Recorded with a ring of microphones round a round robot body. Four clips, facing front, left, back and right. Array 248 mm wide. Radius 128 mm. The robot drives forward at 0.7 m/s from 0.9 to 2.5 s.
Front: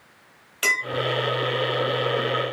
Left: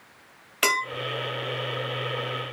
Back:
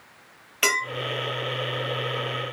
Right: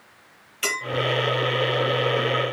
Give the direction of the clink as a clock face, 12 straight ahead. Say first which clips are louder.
Left 5 dB, back 1 dB; 8 o'clock.